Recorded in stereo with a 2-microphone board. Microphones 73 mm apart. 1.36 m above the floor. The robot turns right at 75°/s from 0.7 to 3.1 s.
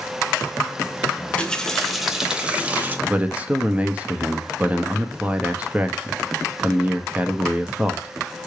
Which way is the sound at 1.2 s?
20° left (ahead or behind).